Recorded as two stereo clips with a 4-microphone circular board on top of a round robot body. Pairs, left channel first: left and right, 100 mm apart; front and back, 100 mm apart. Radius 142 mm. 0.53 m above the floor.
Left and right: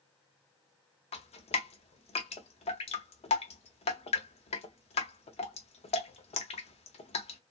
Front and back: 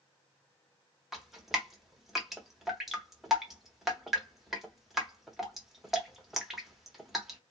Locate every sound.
1.1 s dripping: 95° left, 0.9 m